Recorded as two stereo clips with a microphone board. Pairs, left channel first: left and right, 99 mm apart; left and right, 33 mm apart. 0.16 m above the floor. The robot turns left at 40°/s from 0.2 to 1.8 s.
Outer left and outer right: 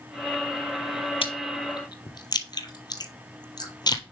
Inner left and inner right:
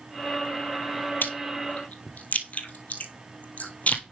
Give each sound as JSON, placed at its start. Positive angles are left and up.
{"t": 1.2, "sound": "chewing", "side_deg": 65, "distance_m": 1.0}